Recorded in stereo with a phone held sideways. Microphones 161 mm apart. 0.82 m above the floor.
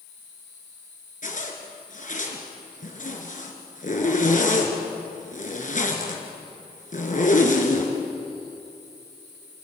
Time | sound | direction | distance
1.2 | a zipper | 55° left (ahead or behind) | 3 m